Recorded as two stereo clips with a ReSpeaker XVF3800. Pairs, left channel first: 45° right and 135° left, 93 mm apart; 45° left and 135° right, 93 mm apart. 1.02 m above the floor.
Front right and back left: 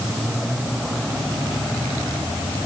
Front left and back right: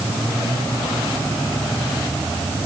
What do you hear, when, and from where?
Only background noise.